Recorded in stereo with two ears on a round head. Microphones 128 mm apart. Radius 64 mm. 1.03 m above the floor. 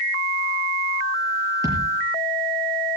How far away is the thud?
About 6.5 m.